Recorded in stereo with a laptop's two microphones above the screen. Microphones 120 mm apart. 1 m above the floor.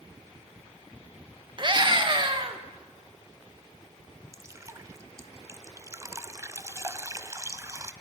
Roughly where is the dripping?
Right.